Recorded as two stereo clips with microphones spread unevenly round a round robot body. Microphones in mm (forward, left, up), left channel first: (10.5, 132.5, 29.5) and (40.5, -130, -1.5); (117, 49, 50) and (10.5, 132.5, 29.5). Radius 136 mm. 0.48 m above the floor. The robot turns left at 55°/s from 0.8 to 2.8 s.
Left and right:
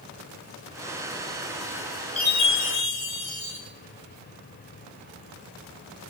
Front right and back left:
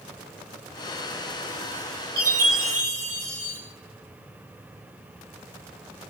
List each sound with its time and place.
2.2 s a chime: 165° left, 8.5 m; by 3.6 s 130° left, 8.5 m